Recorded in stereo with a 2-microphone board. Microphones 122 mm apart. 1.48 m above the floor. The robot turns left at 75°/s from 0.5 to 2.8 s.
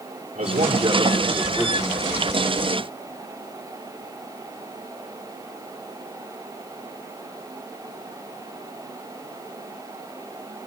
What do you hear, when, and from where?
0.3 s a man speaking: 105° right, 4.5 m; by 2.0 s 140° left, 4.5 m